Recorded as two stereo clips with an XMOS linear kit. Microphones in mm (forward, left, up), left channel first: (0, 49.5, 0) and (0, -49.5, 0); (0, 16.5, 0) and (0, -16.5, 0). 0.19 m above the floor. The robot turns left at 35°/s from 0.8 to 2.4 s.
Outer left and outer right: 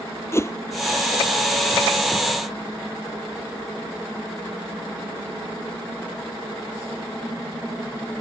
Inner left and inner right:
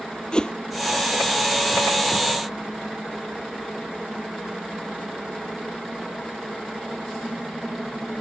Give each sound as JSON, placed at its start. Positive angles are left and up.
{"t": 0.3, "sound": "a whoosh", "side_deg": 25}